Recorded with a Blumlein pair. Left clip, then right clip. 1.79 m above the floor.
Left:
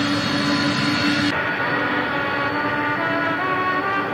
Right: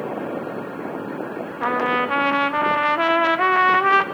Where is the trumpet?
65° right, 1.1 m.